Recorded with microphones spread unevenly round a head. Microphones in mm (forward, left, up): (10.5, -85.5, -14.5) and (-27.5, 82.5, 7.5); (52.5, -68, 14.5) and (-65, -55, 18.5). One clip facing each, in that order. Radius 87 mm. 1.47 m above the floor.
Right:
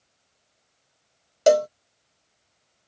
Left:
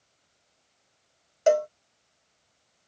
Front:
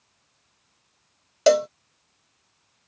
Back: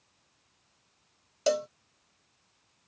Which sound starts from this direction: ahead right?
A cowbell, at 1.5 s.